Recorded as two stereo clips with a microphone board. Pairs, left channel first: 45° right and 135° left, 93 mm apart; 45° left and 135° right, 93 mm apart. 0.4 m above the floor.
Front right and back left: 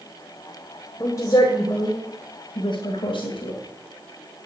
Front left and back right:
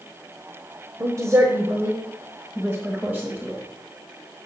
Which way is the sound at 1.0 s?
90° right.